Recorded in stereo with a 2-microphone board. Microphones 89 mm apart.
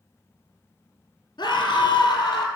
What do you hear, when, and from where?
1.4 s a scream: 50° left (ahead or behind), 1.8 m; by 2.5 s 45° left (ahead or behind), 2.5 m